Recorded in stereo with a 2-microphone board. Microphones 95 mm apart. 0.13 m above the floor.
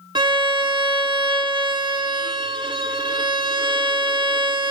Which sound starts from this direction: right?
A violin, at 0.1 s.